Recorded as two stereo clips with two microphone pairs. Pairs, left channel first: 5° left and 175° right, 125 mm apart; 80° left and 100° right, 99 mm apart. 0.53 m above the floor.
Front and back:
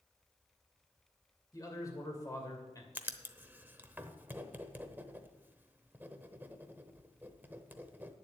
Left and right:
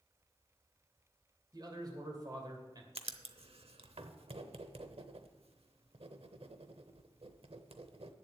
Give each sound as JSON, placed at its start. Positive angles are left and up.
{"t": 1.5, "sound": "a man speaking", "azimuth_deg": -55, "distance_m": 2.5}
{"t": 3.0, "sound": "writing", "azimuth_deg": -100, "distance_m": 0.8}